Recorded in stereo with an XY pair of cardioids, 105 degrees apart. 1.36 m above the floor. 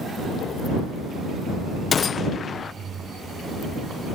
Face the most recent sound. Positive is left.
turn(degrees=40)